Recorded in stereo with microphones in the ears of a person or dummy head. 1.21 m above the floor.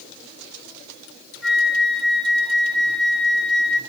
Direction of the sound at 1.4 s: Centre (ahead or behind).